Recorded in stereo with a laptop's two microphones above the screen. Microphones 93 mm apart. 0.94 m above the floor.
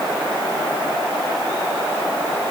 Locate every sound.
Only background noise.